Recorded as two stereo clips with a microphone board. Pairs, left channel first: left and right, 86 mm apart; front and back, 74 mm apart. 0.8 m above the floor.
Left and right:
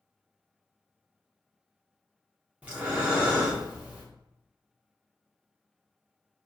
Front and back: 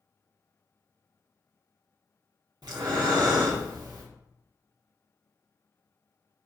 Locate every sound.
2.6 s breathing: 165° right, 0.9 m